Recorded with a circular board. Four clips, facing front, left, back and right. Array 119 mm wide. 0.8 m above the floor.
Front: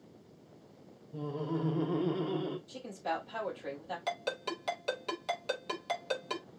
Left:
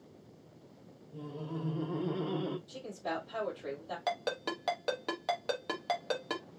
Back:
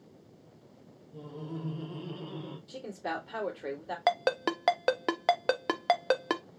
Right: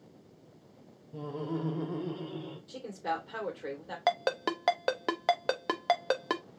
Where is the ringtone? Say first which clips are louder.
Right 6 dB, back 10 dB; 150° right, 0.6 m.